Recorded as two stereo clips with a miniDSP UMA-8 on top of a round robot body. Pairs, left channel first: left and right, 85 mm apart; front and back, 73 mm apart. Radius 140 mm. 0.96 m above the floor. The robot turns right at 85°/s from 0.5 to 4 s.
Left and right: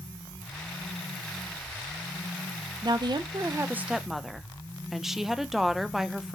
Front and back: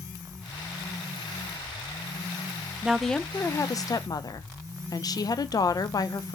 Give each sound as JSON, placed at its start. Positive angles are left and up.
{"t": 2.8, "sound": "a woman speaking", "azimuth_deg": -105, "distance_m": 0.6}